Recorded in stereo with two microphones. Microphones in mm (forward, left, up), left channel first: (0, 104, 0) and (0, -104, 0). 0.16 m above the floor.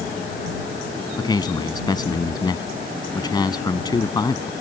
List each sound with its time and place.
1.2 s a man speaking: 20° left (ahead or behind)